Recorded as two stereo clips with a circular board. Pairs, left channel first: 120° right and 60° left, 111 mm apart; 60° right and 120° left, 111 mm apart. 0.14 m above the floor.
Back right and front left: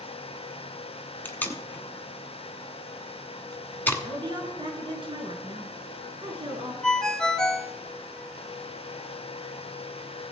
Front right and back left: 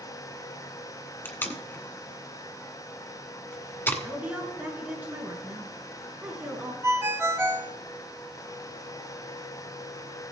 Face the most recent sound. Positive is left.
turn(degrees=160)